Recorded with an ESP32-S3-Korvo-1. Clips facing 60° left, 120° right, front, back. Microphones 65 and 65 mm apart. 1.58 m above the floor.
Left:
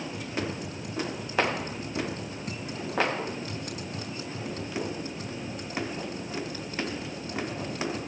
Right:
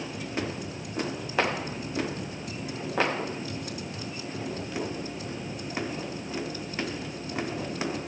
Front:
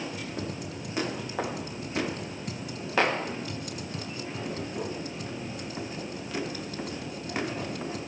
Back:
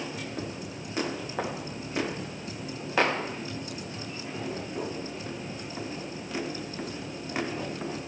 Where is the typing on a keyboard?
25° left, 5 m.